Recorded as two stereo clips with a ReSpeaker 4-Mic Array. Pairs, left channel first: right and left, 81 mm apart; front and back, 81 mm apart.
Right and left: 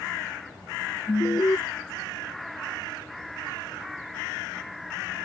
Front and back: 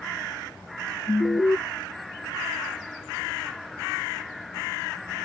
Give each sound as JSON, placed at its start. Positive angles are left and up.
{"t": 1.1, "sound": "an alarm", "azimuth_deg": -55}